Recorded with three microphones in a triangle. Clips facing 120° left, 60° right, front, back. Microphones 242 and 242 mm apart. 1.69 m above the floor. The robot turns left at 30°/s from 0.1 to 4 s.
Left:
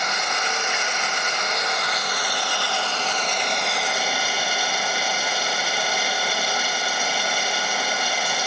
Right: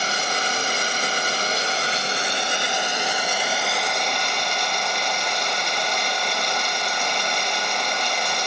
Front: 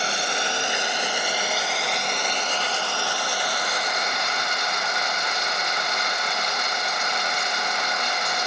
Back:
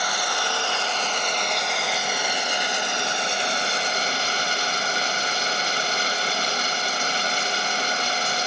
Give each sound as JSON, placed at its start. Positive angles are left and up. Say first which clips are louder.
{"t": 0.0, "sound": "running water", "louder": "right 2 dB, front 1 dB", "azimuth_deg": -40, "distance_m": 1.0}